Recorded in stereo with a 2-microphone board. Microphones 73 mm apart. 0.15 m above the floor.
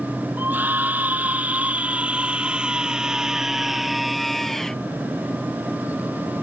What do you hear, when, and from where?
0.4 s a scream: 25° right (ahead or behind); by 4.8 s 5° left (ahead or behind)